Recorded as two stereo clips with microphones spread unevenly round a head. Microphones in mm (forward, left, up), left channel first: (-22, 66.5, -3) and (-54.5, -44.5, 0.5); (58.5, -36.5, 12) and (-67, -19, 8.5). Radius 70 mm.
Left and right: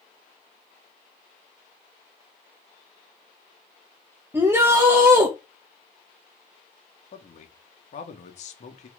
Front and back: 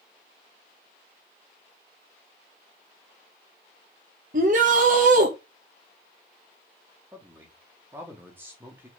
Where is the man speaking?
95° left, 2 m.